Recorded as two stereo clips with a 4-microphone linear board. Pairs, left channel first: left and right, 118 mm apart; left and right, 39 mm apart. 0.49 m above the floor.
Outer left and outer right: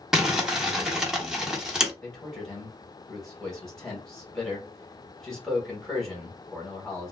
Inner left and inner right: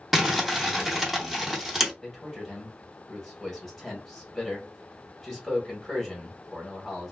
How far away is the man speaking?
About 1.7 m.